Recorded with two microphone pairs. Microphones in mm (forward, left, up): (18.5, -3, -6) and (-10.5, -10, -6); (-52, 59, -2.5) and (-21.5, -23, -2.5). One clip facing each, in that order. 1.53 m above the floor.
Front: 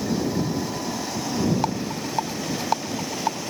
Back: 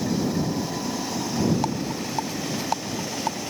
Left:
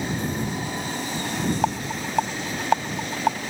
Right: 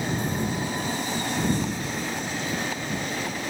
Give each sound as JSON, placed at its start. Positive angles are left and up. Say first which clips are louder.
{"t": 1.6, "sound": "a rattle", "louder": "front 1 dB, left 4 dB", "azimuth_deg": 90}